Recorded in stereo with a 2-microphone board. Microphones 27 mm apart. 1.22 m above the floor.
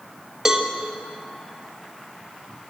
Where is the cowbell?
15° right (ahead or behind), 1.8 m.